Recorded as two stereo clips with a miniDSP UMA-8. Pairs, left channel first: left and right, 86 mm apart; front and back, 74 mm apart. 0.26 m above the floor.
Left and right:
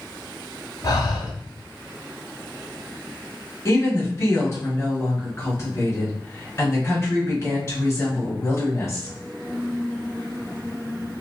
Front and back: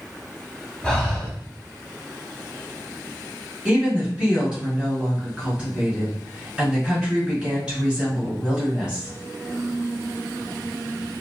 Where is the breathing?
75° left, 0.7 m.